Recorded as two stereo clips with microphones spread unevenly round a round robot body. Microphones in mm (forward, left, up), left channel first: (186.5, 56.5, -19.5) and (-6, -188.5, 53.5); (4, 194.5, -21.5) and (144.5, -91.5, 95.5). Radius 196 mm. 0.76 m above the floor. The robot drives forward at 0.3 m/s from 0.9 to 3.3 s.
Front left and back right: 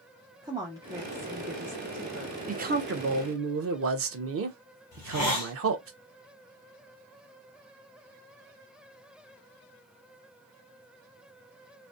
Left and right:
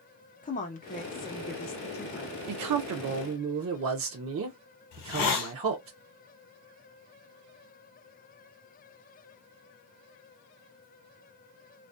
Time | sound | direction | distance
0.4 | a woman speaking | 145° left | 0.5 m
2.5 | a man speaking | 60° right | 0.6 m
4.9 | a hiss | 130° left | 1.1 m